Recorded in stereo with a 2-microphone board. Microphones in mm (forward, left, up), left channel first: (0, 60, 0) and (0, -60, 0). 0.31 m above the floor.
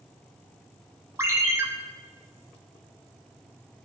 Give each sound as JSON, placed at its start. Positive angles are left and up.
{"t": 1.2, "sound": "a ringtone", "side_deg": -20, "distance_m": 0.9}